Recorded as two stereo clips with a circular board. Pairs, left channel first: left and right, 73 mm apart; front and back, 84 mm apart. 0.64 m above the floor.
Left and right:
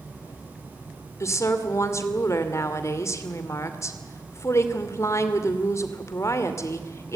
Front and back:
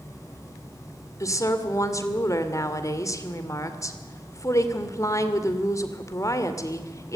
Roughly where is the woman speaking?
Ahead left.